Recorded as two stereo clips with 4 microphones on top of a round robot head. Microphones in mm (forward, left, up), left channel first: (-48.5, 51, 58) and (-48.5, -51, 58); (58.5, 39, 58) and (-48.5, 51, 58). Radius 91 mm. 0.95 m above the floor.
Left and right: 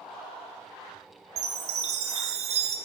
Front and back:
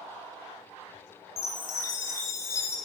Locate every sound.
1.4 s a chime: 75° right, 1.9 m